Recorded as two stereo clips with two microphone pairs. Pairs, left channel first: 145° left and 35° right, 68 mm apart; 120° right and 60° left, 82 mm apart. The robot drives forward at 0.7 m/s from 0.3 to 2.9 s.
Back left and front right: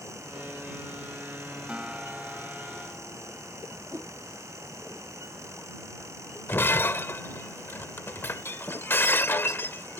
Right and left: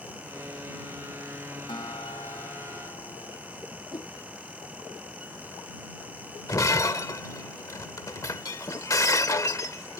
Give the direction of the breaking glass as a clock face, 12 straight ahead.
5 o'clock.